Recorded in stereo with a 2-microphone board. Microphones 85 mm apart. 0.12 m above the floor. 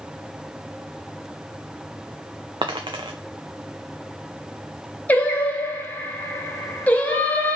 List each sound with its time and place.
2.6 s a dropped coin: 80° right, 0.8 m
5.1 s singing: 20° left (ahead or behind), 1.0 m